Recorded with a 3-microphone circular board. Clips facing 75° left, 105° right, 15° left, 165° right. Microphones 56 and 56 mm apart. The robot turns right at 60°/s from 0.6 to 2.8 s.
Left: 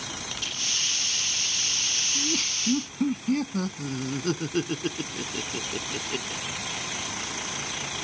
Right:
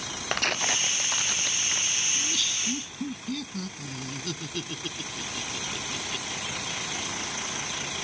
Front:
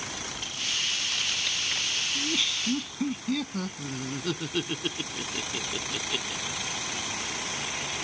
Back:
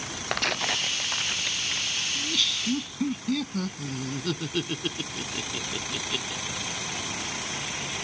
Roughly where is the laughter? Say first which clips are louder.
Left 2 dB, even; ahead left.